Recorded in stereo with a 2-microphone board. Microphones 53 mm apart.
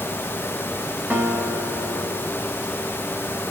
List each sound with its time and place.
1.1 s a guitar: 30° right (ahead or behind), 1.5 m